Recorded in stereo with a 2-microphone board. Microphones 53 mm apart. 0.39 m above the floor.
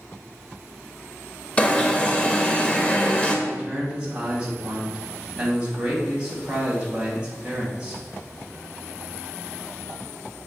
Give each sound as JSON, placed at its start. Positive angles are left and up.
{"t": 1.6, "sound": "an alarm", "side_deg": 20, "distance_m": 0.9}
{"t": 3.5, "sound": "a man speaking", "side_deg": -20, "distance_m": 2.5}